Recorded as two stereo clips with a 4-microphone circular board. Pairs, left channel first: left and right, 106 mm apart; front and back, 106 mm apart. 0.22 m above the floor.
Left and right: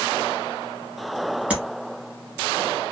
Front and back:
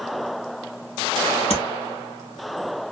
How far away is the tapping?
About 1.4 m.